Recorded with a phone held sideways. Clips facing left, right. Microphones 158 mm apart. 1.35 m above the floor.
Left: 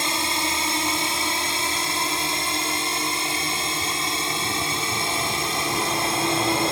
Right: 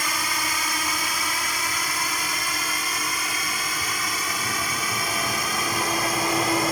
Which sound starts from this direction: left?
A drone, at 0.0 s.